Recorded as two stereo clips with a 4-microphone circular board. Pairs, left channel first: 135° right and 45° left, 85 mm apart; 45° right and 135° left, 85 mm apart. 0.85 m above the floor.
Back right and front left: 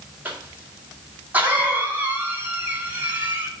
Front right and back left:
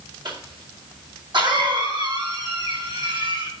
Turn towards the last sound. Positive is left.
turn(degrees=115)